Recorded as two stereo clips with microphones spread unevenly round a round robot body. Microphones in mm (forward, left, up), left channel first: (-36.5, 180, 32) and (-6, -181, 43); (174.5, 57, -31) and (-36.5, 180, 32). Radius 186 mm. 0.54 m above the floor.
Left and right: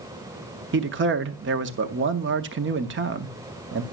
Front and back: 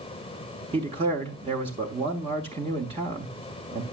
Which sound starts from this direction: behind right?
A man speaking, at 0.7 s.